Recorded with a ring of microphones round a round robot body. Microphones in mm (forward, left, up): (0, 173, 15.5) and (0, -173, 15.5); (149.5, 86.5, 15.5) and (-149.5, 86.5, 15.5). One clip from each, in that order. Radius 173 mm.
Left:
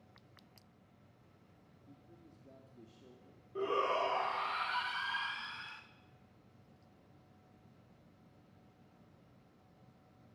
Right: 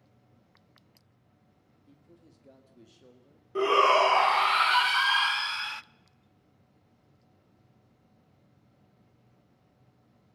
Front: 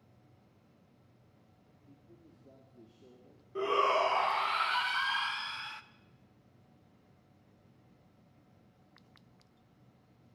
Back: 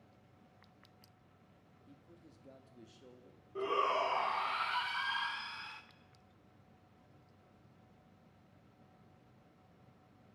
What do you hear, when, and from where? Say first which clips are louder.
1.9 s a man speaking: right 3 dB, front 1 dB; 150° right, 1.9 m
3.5 s a shout: right 12 dB, front 5 dB; 80° right, 0.8 m